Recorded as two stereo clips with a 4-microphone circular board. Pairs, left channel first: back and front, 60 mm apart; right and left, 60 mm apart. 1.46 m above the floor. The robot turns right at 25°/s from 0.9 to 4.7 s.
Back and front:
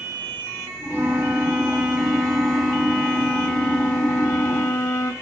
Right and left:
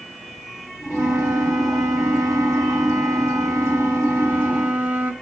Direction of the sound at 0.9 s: 55° left.